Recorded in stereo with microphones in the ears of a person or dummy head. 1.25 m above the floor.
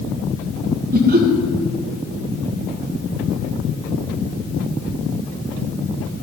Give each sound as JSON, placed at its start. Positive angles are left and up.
{"t": 0.9, "sound": "laughter", "side_deg": -50, "distance_m": 1.8}